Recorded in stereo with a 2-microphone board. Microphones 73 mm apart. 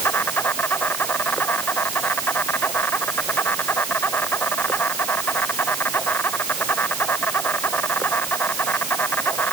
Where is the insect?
30° left (ahead or behind).